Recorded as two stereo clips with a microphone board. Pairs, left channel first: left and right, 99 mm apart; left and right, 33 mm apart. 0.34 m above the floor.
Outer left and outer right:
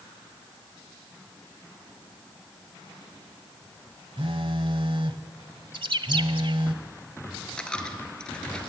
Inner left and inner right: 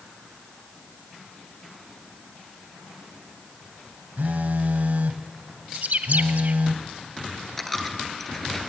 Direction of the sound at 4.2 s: 60° right (ahead or behind).